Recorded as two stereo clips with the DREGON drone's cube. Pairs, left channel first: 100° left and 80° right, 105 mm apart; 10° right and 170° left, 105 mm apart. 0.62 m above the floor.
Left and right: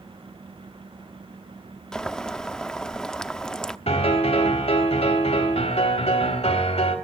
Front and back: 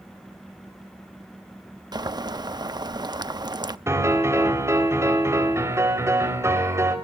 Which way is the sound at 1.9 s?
Straight behind.